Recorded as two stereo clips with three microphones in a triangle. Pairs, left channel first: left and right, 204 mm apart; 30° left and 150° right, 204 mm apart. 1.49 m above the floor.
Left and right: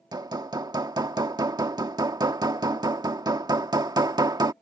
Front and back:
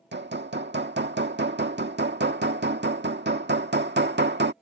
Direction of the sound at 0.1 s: 155° right.